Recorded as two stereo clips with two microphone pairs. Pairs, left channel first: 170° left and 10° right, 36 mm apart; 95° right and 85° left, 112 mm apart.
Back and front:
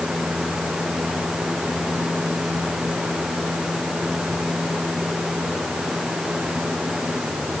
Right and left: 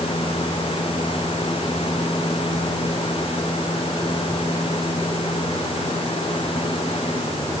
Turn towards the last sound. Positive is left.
No sound to turn to.